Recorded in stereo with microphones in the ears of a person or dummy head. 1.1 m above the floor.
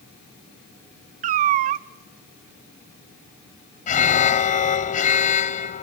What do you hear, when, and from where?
1.2 s a cat meowing: 40° right (ahead or behind), 0.5 m
3.9 s an alarm: 45° left (ahead or behind), 0.9 m